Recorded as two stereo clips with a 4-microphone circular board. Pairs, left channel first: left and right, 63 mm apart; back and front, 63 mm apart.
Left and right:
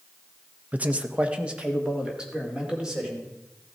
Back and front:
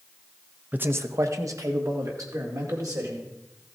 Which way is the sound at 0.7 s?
40° right.